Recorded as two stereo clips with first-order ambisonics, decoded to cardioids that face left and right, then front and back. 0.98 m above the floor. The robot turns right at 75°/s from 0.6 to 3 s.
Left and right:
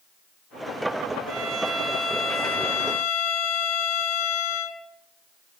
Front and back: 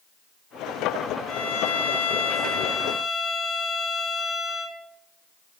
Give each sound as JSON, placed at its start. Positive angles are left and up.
{"t": 1.3, "sound": "a violin", "azimuth_deg": -35, "distance_m": 1.1}